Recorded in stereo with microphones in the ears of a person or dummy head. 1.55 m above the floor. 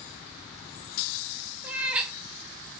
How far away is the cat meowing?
About 1.1 m.